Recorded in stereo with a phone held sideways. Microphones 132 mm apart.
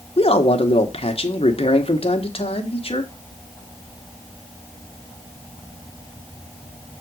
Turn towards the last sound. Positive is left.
turn(degrees=45)  # may be behind; listen again after turning